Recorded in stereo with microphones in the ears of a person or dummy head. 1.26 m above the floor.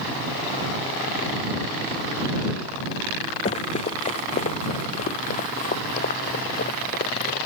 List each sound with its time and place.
3.5 s running footsteps: 30° left (ahead or behind); by 7.4 s 45° left (ahead or behind)